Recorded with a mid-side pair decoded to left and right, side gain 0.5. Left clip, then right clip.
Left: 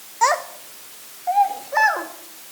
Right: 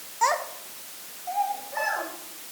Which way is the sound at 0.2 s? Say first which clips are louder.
Left 5 dB; 35° left.